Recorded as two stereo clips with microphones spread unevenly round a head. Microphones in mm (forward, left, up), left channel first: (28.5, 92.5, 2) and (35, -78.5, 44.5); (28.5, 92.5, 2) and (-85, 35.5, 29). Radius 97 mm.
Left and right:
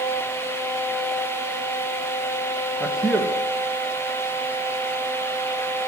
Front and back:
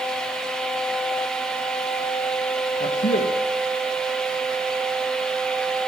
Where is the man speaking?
5° left, 1.9 m.